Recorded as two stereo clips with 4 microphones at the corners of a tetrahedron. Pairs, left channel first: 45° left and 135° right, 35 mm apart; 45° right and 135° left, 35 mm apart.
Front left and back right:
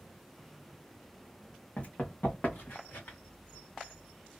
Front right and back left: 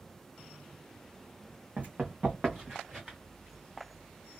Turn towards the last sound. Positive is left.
turn(degrees=65)